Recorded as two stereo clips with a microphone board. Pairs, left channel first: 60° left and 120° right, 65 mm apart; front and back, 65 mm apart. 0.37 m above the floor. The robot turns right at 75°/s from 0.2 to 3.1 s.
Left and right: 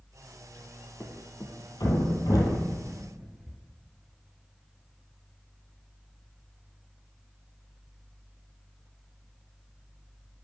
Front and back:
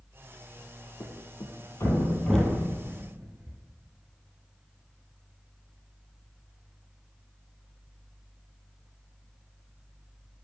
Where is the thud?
10° right, 1.5 m; by 3.6 s 145° left, 1.5 m.